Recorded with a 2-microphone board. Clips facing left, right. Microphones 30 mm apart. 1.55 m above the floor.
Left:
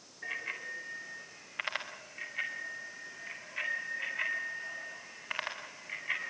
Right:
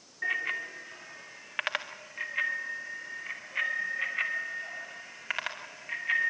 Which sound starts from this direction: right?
A bicycle bell, at 0.2 s.